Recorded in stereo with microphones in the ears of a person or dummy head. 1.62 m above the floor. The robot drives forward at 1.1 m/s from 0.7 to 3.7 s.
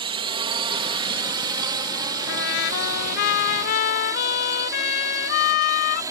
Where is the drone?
25° right (ahead or behind); by 6.1 s 15° right (ahead or behind).